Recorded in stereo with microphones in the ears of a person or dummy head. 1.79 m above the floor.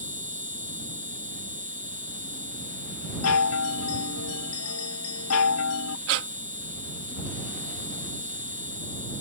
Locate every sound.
0.0 s an insect: 30° right (ahead or behind)
3.2 s a chime: 75° left (ahead or behind)
6.1 s breathing: 70° right (ahead or behind)